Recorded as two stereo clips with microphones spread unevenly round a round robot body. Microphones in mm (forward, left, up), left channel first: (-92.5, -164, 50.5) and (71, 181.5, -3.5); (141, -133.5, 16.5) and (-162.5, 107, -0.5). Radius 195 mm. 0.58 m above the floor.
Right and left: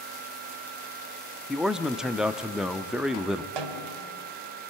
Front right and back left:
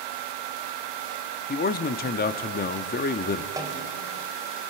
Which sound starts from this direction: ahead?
A man speaking, at 1.5 s.